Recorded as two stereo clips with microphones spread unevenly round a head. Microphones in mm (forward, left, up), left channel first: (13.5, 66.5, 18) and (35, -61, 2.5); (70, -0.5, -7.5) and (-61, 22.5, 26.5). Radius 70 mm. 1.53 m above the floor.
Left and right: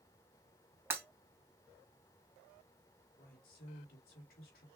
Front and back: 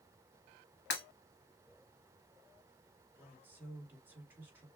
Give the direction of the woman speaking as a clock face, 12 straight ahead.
9 o'clock.